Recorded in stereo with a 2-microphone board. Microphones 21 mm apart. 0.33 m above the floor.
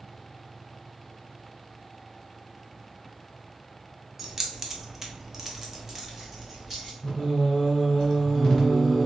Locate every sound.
4.2 s keys jangling: 15° right (ahead or behind), 0.8 m; by 6.9 s 10° right (ahead or behind), 1.5 m
7.0 s singing: 30° left (ahead or behind), 1.6 m